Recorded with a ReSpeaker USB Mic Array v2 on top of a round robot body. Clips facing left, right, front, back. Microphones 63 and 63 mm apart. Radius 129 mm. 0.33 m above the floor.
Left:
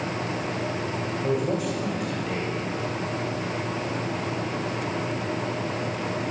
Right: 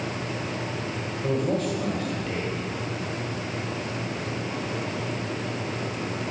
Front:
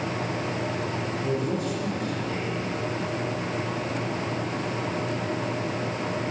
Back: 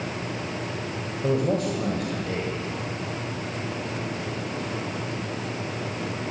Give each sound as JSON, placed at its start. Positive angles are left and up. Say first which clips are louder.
{"t": 1.2, "sound": "a man speaking", "louder": "right 1 dB, back 6 dB", "azimuth_deg": 175, "distance_m": 2.0}